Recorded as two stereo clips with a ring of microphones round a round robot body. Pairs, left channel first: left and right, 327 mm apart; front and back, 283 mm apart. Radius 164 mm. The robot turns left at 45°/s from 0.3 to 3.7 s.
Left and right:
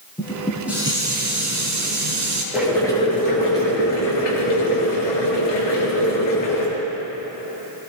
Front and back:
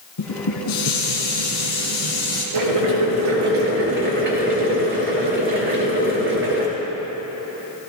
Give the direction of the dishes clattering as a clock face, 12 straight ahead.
12 o'clock.